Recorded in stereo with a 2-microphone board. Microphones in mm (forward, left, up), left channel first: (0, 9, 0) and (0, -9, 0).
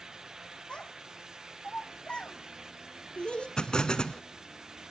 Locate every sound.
0.7 s a child speaking: 55° left (ahead or behind), 2 m; by 3.5 s 65° left (ahead or behind), 2 m
3.6 s an explosion: 50° left (ahead or behind), 0.7 m